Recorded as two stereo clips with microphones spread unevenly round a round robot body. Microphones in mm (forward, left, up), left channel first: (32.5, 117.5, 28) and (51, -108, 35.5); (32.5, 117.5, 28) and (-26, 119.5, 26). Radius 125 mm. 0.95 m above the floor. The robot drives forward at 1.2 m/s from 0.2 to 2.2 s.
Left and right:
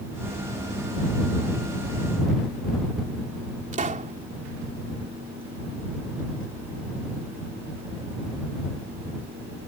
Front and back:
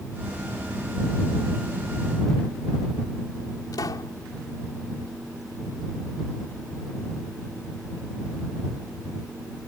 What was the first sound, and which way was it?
A pop, 30° right.